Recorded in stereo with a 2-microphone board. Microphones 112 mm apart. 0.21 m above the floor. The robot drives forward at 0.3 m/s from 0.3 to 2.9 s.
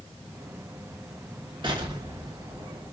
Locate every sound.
1.6 s an explosion: 45° right (ahead or behind), 0.9 m; by 2.9 s 35° right (ahead or behind), 1.1 m